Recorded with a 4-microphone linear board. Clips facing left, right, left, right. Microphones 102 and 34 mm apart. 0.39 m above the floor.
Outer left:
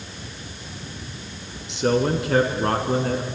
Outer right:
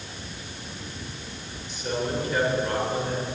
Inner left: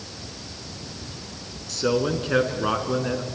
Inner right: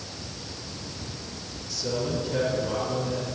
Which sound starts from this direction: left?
A man speaking, at 1.7 s.